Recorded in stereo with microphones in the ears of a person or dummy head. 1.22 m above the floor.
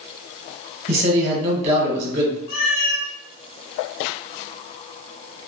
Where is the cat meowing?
45° left (ahead or behind), 0.7 m.